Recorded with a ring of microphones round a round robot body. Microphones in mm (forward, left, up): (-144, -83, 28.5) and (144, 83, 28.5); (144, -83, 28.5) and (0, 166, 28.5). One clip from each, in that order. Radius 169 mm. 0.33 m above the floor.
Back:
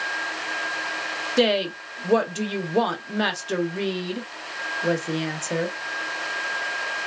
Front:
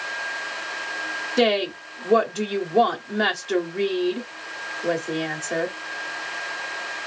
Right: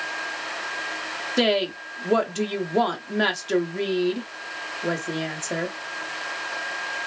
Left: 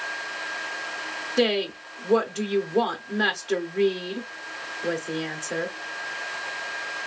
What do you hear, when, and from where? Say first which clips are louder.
1.4 s a woman speaking: front 1 dB, right 1 dB; 105° right, 0.8 m